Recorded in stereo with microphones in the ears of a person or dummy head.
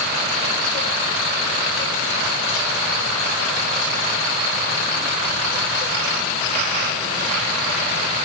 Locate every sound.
Only background noise.